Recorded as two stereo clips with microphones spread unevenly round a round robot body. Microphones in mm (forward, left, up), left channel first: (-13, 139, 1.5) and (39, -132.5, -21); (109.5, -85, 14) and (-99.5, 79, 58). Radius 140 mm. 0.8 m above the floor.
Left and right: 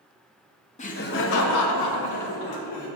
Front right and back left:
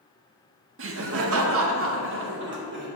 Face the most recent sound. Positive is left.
turn(degrees=90)